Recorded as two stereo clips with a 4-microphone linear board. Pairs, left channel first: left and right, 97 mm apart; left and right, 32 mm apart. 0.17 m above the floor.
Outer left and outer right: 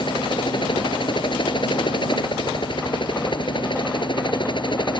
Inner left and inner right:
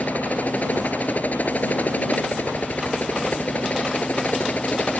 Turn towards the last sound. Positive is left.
turn(degrees=50)  # may be behind; listen again after turning